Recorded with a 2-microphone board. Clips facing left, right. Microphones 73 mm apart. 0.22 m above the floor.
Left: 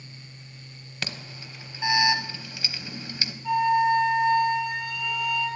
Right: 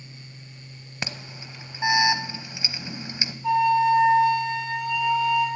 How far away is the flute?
About 4.5 m.